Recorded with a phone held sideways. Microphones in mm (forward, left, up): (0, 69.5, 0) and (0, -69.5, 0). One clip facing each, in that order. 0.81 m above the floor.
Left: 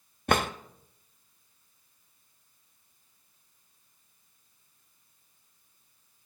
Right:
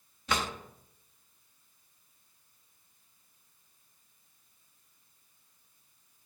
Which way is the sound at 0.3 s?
55° left (ahead or behind).